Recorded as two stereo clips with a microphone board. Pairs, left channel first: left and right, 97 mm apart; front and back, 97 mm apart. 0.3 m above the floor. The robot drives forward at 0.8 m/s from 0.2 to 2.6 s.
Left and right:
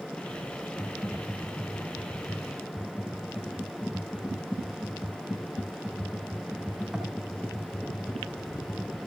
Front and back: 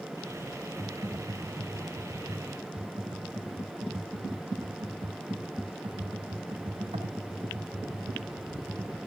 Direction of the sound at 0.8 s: 150° right.